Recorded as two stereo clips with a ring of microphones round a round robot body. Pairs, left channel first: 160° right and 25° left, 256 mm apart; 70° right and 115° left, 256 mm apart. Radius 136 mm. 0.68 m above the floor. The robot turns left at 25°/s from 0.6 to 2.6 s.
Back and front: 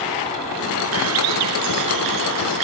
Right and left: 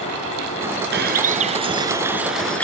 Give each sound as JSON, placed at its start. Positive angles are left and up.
{"t": 0.9, "sound": "a bird", "azimuth_deg": 60}